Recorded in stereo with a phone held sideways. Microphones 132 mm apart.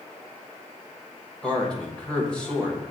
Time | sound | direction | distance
1.4 | a man speaking | 5° left (ahead or behind) | 1.0 m